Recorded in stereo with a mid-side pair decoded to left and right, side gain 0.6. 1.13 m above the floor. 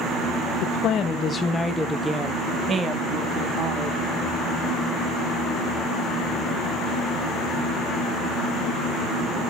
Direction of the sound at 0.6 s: 65° left.